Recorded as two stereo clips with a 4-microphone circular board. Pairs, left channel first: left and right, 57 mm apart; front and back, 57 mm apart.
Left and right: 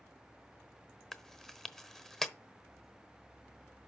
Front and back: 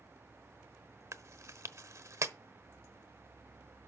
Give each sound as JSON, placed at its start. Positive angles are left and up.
{"t": 1.1, "sound": "chewing", "azimuth_deg": 170, "distance_m": 0.9}